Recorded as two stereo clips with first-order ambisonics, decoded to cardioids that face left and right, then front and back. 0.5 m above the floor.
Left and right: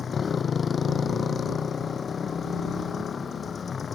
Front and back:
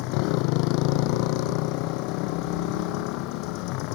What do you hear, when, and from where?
0.0 s a motorcycle: 20° left